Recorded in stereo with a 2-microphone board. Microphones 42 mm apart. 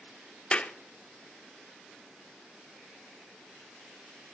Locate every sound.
0.5 s a clap: 20° left (ahead or behind), 0.6 m